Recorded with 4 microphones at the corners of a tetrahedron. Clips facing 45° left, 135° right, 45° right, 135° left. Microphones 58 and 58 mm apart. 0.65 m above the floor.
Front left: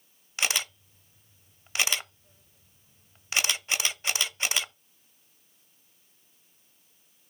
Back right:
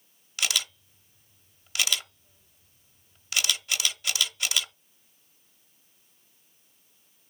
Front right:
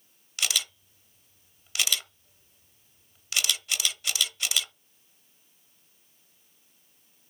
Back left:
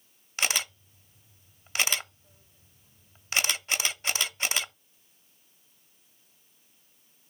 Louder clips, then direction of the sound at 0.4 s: Front left 1 dB, back left 2 dB; 90° left.